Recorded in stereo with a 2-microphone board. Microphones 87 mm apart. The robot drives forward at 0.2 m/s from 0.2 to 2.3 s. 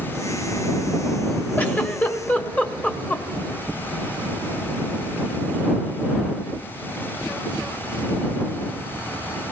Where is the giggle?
20° left (ahead or behind), 1.0 m.